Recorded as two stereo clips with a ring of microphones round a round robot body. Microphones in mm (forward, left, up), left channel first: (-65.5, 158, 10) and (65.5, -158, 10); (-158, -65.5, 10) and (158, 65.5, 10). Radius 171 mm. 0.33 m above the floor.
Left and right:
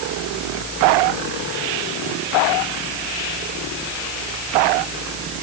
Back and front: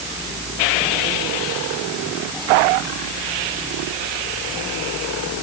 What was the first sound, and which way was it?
Only background noise.